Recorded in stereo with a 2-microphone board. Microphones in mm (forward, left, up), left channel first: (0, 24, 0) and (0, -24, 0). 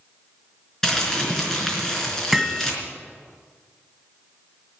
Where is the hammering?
5° right (ahead or behind), 1.5 m.